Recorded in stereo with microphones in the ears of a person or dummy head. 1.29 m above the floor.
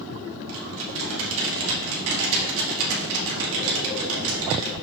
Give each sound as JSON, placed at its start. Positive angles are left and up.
{"t": 0.5, "sound": "typing on a keyboard", "side_deg": -80, "distance_m": 1.8}